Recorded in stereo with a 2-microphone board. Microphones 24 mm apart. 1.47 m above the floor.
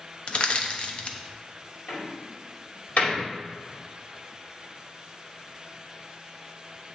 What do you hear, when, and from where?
0.3 s crushing: 45° left (ahead or behind), 0.6 m
1.9 s a door slam: 70° left (ahead or behind), 2.5 m